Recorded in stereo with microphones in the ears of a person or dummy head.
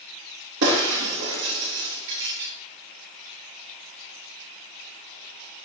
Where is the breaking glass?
70° right (ahead or behind), 3.5 m.